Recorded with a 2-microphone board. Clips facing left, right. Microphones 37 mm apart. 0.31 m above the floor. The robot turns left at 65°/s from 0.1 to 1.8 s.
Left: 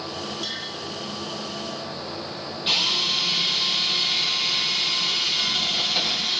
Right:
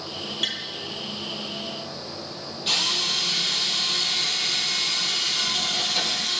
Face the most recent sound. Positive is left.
turn(degrees=20)  # may be behind; listen again after turning